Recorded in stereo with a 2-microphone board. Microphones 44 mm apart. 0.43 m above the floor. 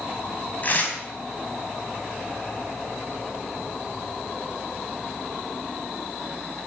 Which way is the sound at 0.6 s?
40° left (ahead or behind).